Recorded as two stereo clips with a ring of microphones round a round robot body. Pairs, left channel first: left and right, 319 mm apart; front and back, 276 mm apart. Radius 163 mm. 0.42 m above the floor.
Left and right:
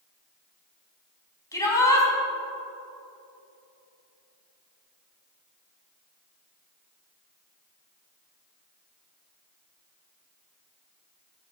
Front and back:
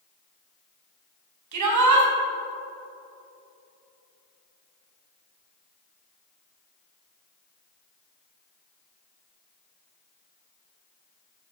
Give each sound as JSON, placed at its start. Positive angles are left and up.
{"t": 1.5, "sound": "a shout", "azimuth_deg": 170, "distance_m": 4.0}